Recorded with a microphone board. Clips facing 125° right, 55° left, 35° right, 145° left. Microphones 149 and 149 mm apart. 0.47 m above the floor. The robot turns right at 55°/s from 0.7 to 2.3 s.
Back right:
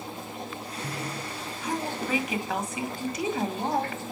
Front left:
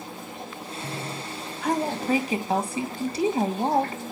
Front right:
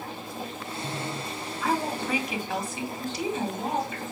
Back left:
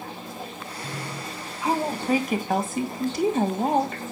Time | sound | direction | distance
1.6 | a woman speaking | 75° left | 2.5 m